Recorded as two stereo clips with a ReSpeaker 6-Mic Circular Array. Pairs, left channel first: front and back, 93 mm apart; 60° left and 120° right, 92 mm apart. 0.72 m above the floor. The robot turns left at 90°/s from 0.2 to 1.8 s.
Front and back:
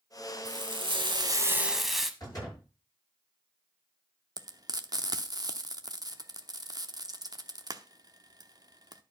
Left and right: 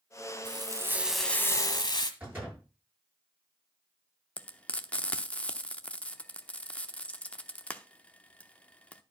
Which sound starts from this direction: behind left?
Frying, at 4.4 s.